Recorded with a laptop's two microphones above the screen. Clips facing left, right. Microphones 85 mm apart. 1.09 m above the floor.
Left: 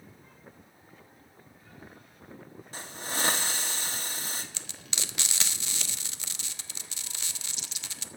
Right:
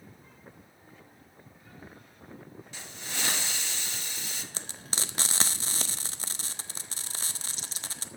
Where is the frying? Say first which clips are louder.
Right 3 dB; 40° right (ahead or behind), 0.6 m.